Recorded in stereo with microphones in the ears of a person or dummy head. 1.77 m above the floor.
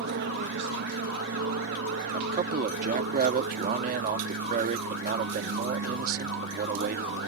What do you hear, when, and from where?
0.0 s an aircraft: 60° right (ahead or behind)
2.1 s a man speaking: 50° right (ahead or behind)